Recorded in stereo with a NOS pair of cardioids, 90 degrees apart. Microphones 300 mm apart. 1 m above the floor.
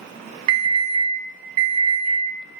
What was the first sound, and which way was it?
An alarm, 60° right.